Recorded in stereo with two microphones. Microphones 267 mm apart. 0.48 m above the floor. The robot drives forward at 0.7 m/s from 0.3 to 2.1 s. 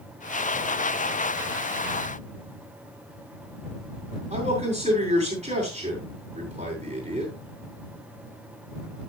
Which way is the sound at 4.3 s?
25° right (ahead or behind).